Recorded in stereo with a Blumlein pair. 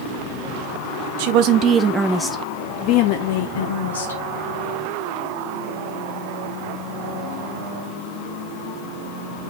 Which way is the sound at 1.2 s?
50° right.